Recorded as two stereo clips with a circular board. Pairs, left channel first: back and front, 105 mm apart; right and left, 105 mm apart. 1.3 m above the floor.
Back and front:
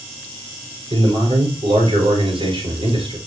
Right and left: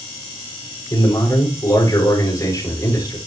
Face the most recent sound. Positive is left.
turn(degrees=-35)